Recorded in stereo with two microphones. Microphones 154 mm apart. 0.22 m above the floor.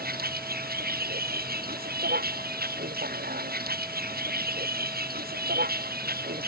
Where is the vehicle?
85° right; by 6.5 s 90° right.